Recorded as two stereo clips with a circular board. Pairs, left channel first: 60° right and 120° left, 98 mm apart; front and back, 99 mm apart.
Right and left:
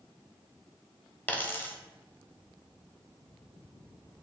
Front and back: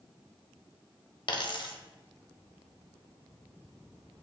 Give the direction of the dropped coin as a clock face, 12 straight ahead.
12 o'clock.